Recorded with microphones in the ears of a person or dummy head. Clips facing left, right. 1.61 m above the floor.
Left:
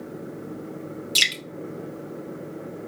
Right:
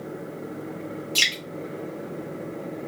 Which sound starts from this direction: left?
Dripping, at 1.1 s.